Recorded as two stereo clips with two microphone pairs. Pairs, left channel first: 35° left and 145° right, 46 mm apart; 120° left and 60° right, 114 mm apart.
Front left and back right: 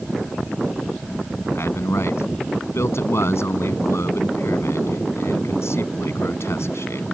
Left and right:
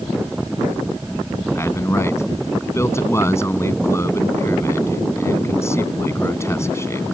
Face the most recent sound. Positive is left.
turn(degrees=55)